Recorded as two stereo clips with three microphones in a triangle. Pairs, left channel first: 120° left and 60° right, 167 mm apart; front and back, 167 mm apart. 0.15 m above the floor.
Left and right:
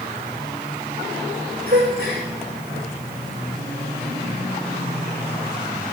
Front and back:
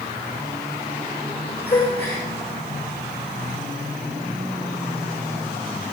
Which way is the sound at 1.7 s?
25° right.